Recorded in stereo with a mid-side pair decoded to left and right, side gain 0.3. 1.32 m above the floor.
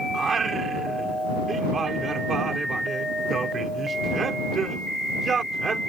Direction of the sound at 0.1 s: 60° right.